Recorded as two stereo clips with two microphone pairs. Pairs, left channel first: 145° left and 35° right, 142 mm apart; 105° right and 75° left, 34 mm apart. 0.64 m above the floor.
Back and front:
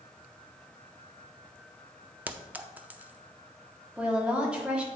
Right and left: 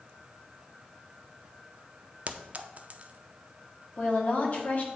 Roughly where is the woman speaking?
Behind right.